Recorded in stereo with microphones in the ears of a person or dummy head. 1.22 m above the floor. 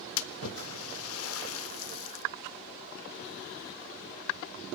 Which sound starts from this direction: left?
A splash, at 0.2 s.